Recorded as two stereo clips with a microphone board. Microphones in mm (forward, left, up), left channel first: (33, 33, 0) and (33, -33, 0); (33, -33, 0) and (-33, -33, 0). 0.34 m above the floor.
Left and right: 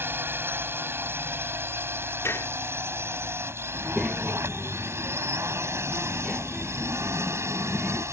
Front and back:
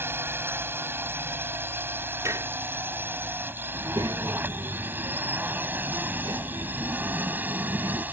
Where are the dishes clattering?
140° left.